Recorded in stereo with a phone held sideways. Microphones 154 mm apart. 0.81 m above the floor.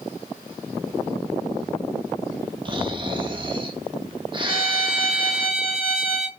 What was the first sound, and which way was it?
Snoring, 35° right (ahead or behind).